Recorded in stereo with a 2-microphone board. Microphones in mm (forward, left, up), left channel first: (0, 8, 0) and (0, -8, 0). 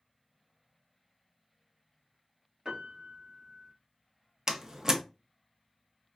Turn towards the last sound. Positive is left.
turn(degrees=-40)  # may be behind; listen again after turning